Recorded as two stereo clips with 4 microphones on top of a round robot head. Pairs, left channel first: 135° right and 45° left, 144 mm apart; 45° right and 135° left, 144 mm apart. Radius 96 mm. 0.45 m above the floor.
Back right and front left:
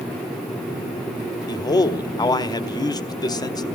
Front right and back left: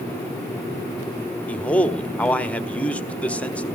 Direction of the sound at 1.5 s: 115° right.